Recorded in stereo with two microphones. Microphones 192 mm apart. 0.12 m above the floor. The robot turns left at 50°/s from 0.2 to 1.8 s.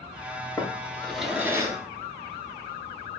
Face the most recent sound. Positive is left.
turn(degrees=-20)  # may be behind; listen again after turning